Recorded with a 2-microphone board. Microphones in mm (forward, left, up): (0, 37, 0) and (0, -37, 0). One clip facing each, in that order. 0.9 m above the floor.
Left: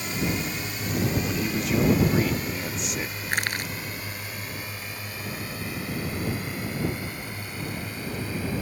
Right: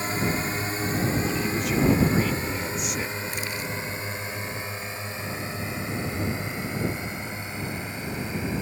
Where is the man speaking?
Centre (ahead or behind).